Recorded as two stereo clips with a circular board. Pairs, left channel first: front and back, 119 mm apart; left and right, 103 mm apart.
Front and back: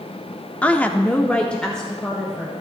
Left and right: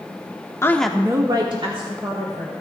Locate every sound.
0.6 s a woman speaking: 70° left, 0.8 m; by 2.5 s 85° right, 2.5 m